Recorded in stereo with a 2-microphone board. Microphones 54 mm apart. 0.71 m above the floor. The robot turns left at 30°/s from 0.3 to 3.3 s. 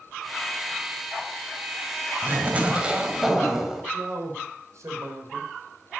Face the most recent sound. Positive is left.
turn(degrees=-70)  # may be behind; listen again after turning